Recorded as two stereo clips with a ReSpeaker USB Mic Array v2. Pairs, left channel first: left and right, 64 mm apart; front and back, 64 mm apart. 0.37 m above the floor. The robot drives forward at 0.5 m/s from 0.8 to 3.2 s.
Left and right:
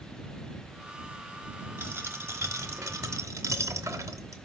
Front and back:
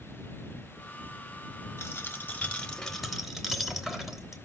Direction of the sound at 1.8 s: 45° right.